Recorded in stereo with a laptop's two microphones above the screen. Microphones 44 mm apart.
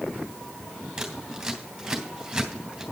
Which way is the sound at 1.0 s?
10° right (ahead or behind).